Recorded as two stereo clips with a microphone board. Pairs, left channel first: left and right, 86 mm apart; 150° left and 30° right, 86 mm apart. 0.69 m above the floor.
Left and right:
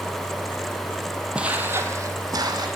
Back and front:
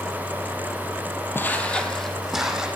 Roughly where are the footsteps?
Behind.